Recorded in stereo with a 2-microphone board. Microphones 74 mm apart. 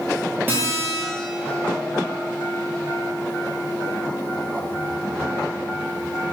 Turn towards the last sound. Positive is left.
turn(degrees=-25)  # may be behind; listen again after turning